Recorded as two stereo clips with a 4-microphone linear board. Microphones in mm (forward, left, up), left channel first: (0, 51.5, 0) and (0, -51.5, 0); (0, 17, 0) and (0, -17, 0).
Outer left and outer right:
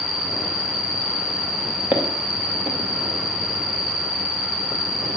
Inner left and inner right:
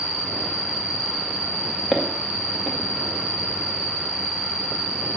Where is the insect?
50° right (ahead or behind), 6 m.